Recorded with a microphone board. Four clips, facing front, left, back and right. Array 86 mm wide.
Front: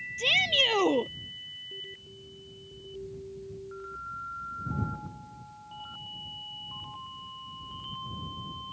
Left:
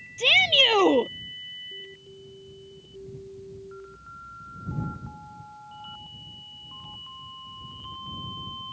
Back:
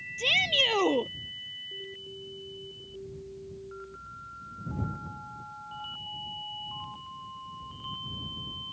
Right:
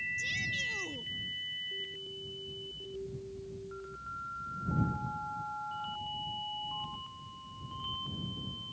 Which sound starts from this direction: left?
A shout, at 0.2 s.